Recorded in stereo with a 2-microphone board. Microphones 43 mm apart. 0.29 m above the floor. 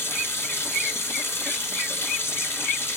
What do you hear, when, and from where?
0.0 s running water: 75° left (ahead or behind), 1.3 m